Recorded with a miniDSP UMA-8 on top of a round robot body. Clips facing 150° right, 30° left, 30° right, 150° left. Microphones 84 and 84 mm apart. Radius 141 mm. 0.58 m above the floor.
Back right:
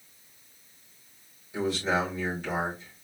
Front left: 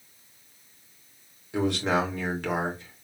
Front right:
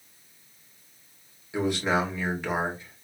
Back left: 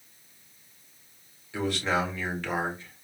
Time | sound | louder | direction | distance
1.5 | a man speaking | front left 2 dB, front right 2 dB | 45° left | 2.5 m